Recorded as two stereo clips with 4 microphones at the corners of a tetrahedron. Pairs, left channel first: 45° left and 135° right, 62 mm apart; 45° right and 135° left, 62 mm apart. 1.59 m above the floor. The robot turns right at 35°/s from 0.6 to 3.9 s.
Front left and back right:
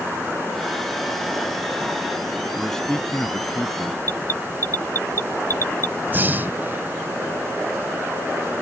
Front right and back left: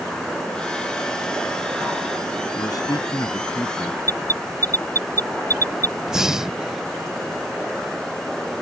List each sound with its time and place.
2.6 s a man speaking: 45° right; by 4.0 s 5° left
4.0 s an alarm: straight ahead
6.1 s breathing: 150° right